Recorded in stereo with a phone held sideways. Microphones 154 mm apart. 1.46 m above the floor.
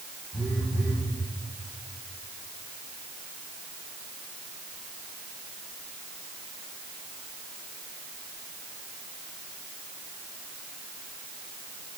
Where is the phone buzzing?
Centre (ahead or behind), 4.5 m.